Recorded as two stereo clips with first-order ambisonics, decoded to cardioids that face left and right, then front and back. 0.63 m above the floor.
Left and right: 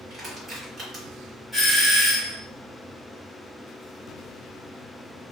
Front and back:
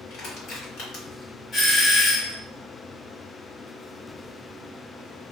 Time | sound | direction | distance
0.1 | crushing | 30° right | 1.6 m
1.5 | a doorbell | straight ahead | 1.5 m